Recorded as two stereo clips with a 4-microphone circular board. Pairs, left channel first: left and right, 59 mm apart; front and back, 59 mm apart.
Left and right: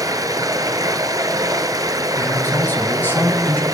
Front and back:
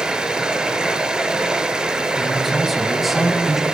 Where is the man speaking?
95° left, 1.2 m.